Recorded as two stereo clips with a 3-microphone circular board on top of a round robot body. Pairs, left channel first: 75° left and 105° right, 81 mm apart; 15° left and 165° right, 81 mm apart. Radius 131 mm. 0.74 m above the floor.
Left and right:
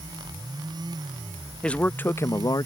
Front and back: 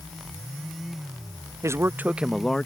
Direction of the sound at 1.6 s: 150° left.